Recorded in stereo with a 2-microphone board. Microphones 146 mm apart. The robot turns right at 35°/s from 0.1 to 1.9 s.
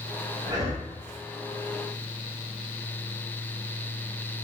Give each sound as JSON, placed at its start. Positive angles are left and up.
{"t": 0.5, "sound": "breathing", "side_deg": -30, "distance_m": 1.3}